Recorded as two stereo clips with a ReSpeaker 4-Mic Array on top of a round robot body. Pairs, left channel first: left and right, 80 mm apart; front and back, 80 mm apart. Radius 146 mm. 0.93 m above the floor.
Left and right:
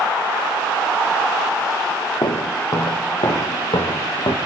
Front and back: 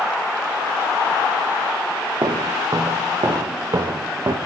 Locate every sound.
2.2 s footsteps: 130° left, 4 m